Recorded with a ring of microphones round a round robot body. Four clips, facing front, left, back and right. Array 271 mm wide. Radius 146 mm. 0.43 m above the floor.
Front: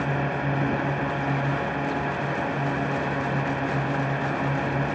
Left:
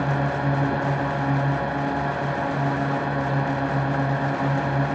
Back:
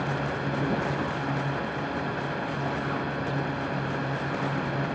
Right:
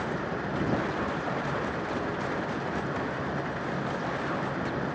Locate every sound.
0.0 s a drone: 75° left